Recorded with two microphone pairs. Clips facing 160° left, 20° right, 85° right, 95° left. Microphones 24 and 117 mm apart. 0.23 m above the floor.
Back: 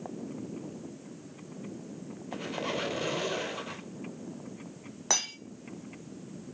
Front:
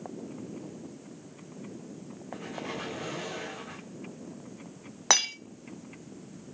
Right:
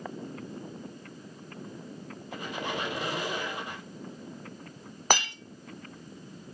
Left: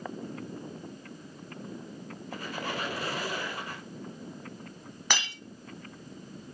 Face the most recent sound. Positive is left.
turn(degrees=-60)